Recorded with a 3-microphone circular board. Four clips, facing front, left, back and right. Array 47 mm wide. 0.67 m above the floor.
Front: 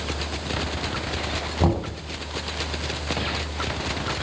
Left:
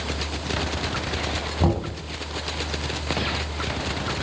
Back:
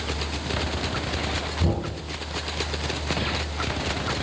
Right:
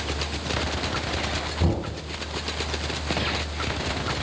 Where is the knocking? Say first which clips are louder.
Left 4 dB, front 6 dB; 30° left, 3.5 m.